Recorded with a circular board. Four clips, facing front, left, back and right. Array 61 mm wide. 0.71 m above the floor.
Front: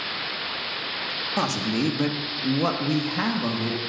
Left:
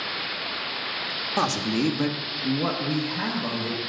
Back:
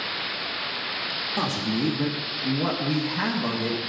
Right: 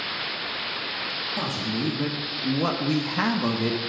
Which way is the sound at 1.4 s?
60° left.